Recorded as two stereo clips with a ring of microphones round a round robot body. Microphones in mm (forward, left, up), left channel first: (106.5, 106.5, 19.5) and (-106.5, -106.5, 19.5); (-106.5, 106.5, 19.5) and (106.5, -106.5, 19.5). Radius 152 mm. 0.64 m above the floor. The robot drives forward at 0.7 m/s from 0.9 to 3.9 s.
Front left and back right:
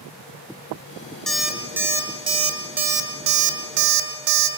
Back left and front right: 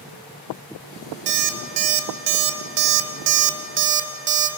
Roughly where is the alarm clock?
Ahead right.